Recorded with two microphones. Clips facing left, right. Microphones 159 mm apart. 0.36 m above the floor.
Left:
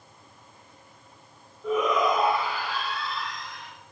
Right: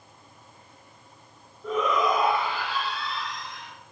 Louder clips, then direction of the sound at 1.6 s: Left 1 dB; 5° left (ahead or behind).